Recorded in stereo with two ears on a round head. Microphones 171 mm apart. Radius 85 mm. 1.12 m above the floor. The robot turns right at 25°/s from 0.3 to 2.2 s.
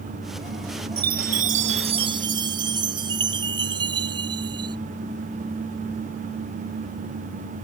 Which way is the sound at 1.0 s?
55° right.